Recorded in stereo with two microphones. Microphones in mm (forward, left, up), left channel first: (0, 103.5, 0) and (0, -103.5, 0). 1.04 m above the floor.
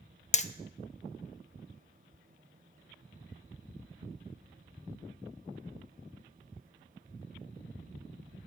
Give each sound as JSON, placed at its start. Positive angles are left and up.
{"t": 0.3, "sound": "hammering", "side_deg": 30, "distance_m": 0.5}